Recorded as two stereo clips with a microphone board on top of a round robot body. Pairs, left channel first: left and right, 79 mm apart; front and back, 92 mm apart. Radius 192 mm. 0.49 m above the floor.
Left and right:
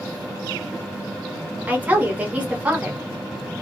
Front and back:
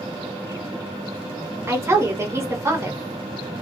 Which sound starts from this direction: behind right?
A woman speaking, at 1.7 s.